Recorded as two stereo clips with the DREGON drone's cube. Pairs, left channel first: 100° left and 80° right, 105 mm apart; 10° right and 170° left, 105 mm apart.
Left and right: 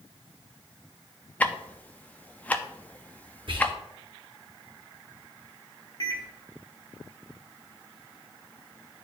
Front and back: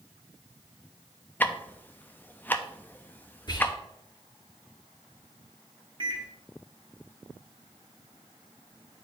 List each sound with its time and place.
1.4 s ticking: 45° left, 0.5 m
3.5 s whispering: 55° right, 1.6 m
6.0 s a microwave: 140° left, 1.4 m